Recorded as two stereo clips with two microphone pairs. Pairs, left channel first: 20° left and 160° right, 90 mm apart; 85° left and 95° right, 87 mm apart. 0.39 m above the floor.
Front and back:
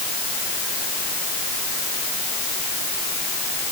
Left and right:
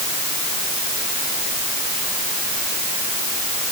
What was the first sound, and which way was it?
Only background noise.